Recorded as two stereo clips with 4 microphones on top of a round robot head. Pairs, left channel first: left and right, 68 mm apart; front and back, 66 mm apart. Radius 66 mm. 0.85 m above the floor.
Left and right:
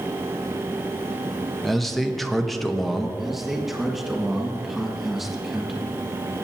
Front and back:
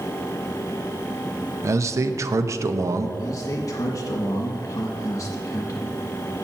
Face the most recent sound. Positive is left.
turn(degrees=-5)